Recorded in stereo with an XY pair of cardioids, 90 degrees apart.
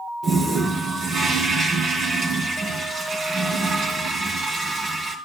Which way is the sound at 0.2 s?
65° right.